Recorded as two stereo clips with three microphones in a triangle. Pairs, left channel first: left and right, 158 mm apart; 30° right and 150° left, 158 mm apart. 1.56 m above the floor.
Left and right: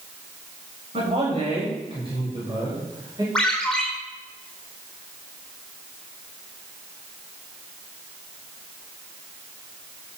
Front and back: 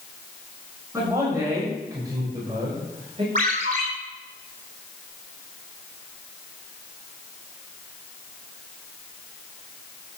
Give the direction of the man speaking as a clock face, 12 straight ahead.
5 o'clock.